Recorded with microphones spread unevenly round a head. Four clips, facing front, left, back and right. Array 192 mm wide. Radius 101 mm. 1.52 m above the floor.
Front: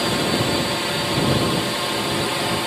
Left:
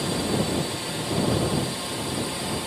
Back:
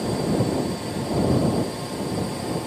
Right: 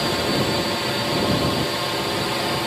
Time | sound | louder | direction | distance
0.0 | a drone | right 4 dB, front 2 dB | 35° right | ?